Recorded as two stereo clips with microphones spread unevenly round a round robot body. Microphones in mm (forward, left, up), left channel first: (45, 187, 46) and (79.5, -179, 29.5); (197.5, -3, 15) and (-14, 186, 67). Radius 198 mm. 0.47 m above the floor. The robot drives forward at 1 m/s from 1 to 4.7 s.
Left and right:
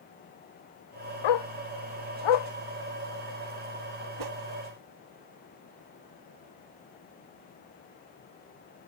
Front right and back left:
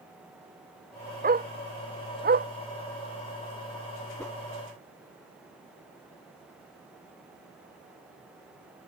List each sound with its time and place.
1.2 s a dog barking: 80° left
4.2 s a whoosh: 130° right; by 4.4 s 135° right